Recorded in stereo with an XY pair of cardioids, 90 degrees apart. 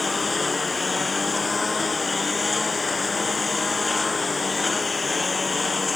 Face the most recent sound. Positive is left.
turn(degrees=30)